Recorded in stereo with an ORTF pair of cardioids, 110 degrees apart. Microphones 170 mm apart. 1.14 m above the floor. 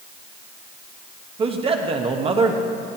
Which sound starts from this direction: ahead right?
A man speaking, at 1.4 s.